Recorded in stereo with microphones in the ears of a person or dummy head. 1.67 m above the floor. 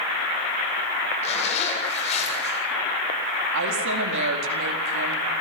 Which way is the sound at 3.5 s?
75° right (ahead or behind).